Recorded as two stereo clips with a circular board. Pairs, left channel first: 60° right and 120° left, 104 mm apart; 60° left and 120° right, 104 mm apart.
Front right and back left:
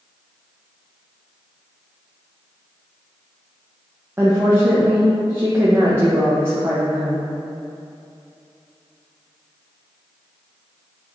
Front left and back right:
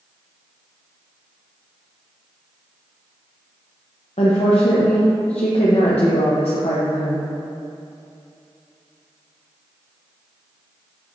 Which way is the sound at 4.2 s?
55° left.